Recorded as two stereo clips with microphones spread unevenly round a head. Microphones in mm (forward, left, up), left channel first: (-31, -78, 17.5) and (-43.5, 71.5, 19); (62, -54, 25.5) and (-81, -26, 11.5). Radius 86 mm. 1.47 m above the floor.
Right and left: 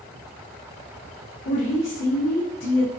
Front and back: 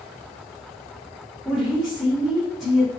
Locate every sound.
1.4 s a woman speaking: 100° right, 1.9 m